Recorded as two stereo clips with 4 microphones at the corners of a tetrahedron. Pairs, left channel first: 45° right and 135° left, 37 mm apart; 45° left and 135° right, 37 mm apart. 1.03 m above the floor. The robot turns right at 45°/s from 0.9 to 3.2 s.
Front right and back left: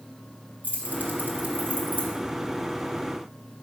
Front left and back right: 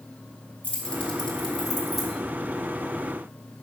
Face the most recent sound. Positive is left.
turn(degrees=-160)